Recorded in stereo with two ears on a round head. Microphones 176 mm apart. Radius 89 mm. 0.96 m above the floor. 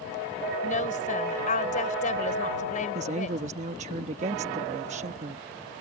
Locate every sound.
0.6 s a woman speaking: 40° left (ahead or behind)
3.0 s a woman speaking: 35° right (ahead or behind)